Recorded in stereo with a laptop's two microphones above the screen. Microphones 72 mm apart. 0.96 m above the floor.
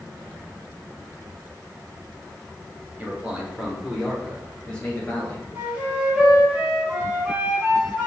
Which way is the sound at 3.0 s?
15° right (ahead or behind).